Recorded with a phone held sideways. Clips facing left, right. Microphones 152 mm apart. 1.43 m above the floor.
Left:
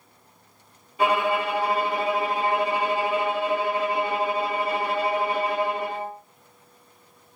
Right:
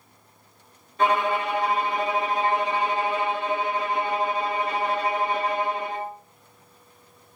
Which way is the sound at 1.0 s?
10° left (ahead or behind).